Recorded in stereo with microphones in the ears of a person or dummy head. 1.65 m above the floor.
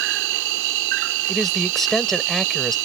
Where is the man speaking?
5° left (ahead or behind).